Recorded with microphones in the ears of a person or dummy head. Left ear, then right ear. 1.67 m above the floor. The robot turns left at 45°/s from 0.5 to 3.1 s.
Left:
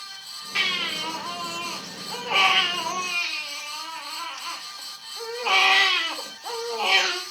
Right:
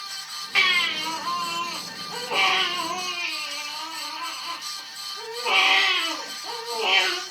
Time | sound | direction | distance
0.6 | a baby crying | 160° right | 1.3 m